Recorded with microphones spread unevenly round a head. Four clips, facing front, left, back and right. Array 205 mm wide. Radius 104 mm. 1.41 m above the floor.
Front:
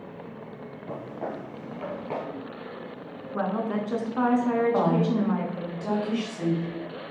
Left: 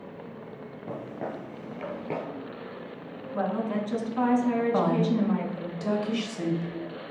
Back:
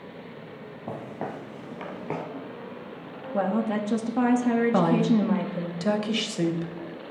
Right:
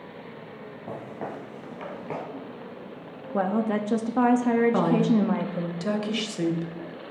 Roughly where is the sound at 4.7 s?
Behind right.